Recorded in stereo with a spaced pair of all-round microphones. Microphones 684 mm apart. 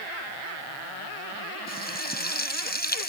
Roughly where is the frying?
Centre.